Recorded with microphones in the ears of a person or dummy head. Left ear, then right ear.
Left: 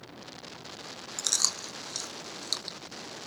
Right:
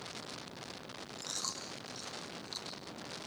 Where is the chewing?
70° left (ahead or behind), 1.7 m.